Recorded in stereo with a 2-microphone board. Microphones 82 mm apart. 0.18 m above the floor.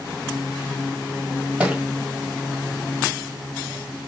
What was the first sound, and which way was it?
A thud, 15° right (ahead or behind).